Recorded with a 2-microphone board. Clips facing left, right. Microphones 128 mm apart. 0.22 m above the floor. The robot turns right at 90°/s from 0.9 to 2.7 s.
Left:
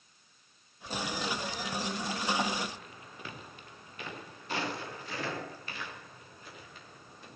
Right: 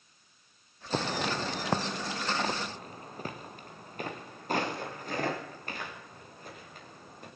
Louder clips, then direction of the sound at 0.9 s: Right 4 dB; 70° right (ahead or behind).